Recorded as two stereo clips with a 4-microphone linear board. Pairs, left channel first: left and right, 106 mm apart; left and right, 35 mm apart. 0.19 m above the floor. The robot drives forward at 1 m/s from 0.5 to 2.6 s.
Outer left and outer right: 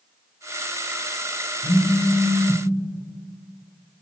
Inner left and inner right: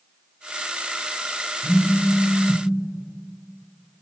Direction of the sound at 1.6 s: 50° left (ahead or behind).